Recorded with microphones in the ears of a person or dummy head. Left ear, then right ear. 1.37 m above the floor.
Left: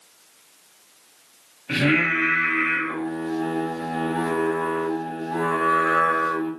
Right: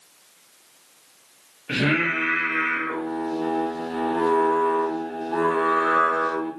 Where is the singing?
10° right (ahead or behind), 0.8 m.